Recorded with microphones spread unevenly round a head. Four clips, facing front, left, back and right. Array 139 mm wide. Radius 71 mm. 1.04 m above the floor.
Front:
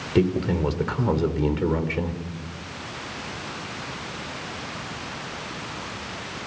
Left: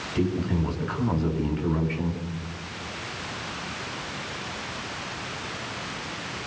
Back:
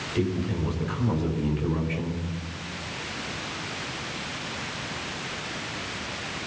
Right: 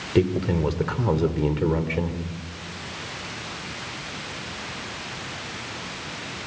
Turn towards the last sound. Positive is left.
turn(degrees=-50)